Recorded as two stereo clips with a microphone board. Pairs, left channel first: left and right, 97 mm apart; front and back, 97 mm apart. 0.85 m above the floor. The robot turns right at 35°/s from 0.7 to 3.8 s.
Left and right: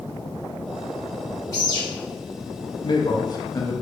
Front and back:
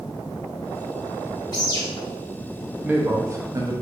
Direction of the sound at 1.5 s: 40° left.